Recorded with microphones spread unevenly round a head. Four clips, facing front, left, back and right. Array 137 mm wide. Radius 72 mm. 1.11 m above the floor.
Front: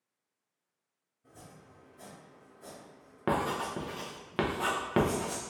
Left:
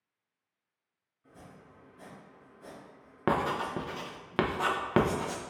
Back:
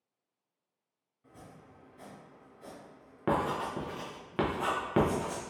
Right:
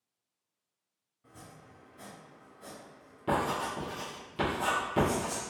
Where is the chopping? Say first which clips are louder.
Even, back 1 dB; 125° right, 1.9 m.